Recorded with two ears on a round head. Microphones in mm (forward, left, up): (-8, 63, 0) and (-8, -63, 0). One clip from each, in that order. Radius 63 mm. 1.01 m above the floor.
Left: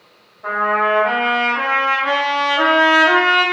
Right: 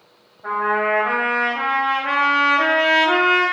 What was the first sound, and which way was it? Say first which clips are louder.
A trumpet: left 3 dB; 75° left (ahead or behind).